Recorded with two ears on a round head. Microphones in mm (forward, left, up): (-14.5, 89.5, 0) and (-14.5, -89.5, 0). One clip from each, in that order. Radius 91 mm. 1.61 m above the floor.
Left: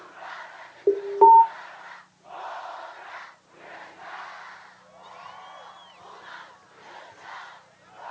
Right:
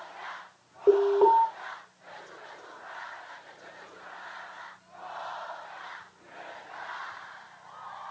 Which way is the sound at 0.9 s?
15° left (ahead or behind).